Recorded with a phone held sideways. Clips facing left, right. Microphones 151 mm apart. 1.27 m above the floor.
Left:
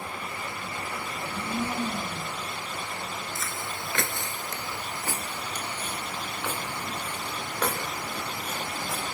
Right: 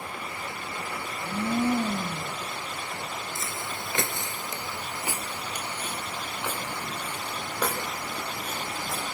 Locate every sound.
1.1 s a blender: 55° right (ahead or behind), 4 m
3.4 s footsteps: 20° right (ahead or behind), 1.3 m; by 9.1 s 5° right (ahead or behind), 5.5 m